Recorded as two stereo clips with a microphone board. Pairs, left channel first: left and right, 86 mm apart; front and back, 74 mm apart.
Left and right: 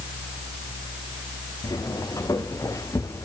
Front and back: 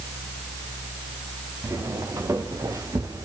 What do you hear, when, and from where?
1.6 s footsteps: 135° left, 3.5 m; by 3.2 s 145° left, 3 m